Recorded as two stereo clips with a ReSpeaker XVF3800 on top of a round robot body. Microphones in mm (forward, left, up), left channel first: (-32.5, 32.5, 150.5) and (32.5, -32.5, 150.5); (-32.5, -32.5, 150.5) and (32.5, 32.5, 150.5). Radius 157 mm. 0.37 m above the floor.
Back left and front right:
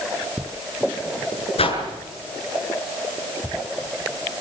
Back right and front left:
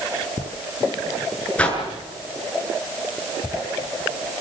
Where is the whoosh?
150° left, 7 m.